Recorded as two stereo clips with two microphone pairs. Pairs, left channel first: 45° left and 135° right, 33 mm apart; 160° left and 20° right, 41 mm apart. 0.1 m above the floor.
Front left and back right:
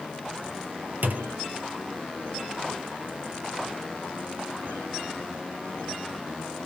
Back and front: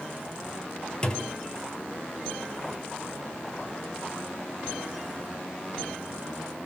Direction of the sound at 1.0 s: 140° right.